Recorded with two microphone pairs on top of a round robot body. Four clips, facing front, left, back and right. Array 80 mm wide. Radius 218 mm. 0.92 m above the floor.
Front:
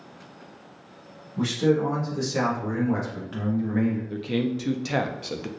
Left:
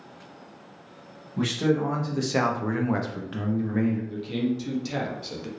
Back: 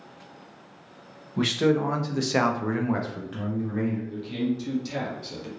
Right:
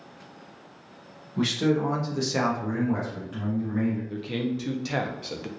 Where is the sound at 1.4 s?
165° right, 1.2 m; by 4.0 s 50° left, 1.0 m.